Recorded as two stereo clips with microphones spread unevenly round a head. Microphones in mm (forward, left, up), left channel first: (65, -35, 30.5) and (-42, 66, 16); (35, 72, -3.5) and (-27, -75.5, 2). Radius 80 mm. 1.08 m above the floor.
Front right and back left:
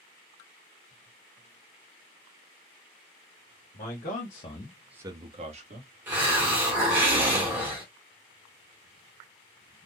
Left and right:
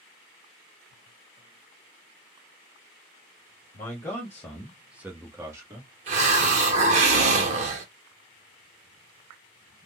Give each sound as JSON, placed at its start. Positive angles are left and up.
{"t": 3.7, "sound": "a man speaking", "azimuth_deg": -5, "distance_m": 1.7}
{"t": 6.1, "sound": "a hiss", "azimuth_deg": -145, "distance_m": 0.9}